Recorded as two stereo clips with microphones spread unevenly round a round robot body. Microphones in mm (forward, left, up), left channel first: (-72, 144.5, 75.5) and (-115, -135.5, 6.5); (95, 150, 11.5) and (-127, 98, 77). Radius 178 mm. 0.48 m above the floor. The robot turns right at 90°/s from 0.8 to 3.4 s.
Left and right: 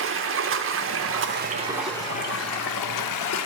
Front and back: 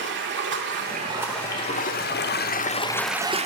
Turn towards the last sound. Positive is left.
turn(degrees=120)